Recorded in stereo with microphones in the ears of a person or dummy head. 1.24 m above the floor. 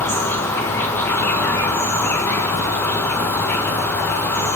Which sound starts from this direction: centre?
An insect, at 0.0 s.